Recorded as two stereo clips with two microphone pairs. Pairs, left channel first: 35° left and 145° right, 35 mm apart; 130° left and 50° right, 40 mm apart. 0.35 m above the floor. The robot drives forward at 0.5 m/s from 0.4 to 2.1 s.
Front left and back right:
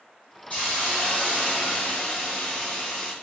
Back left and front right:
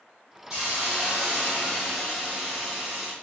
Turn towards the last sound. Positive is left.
turn(degrees=40)